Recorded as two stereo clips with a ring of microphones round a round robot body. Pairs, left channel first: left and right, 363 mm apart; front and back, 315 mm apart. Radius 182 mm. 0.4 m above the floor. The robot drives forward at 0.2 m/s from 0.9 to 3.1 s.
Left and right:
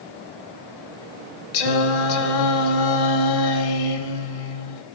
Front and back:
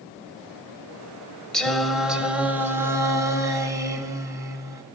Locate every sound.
1.5 s singing: 85° left, 1.5 m; by 4.8 s 100° left, 1.5 m